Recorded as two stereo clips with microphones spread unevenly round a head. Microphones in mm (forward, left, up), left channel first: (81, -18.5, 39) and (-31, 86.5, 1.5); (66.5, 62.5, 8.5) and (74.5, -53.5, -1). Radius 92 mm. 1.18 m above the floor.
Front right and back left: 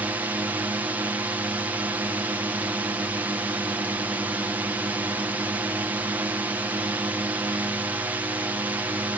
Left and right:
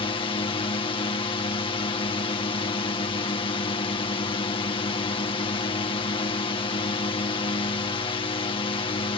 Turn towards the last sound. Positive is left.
turn(degrees=80)